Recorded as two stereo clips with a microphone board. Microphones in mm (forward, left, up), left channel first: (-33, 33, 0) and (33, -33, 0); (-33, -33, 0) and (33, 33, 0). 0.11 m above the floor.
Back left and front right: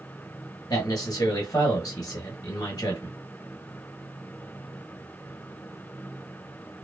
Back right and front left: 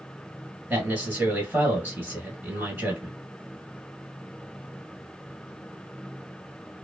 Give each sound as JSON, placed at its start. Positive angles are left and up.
{"t": 0.7, "sound": "a man speaking", "azimuth_deg": 105, "distance_m": 1.7}